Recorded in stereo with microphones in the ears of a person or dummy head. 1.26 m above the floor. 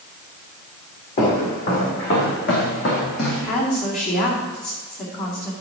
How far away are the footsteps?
About 5 m.